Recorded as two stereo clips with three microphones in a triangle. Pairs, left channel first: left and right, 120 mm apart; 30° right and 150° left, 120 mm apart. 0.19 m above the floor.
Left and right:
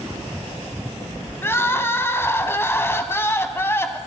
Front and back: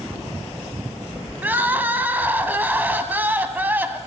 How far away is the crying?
About 0.8 m.